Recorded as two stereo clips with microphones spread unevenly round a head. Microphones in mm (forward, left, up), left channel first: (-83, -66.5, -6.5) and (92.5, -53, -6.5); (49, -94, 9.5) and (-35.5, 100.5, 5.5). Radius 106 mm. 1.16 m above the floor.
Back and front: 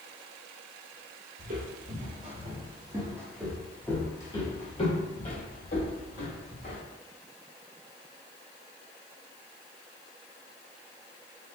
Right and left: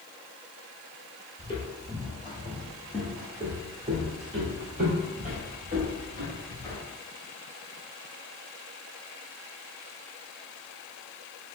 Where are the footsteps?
5° right, 1.7 m; by 6.8 s 160° left, 2.5 m.